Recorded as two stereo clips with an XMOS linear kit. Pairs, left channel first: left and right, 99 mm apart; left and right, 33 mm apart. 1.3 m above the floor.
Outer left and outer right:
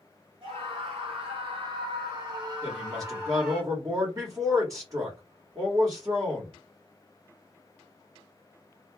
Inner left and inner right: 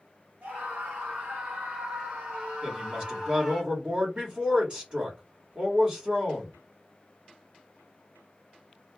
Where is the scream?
65° right (ahead or behind), 1.6 m; by 3.6 s 10° right (ahead or behind), 1.3 m.